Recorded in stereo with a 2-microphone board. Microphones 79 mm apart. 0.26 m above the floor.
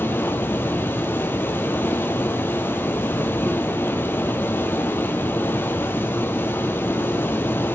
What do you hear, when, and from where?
0.0 s running water: 25° left (ahead or behind), 1.0 m